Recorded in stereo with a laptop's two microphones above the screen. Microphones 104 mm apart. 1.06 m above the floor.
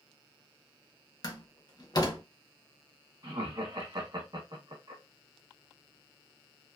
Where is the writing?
I don't hear writing.